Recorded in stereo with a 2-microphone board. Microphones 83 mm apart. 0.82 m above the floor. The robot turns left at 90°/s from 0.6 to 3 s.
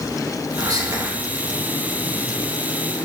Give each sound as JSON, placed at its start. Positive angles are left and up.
{"t": 0.6, "sound": "whispering", "azimuth_deg": -75, "distance_m": 0.9}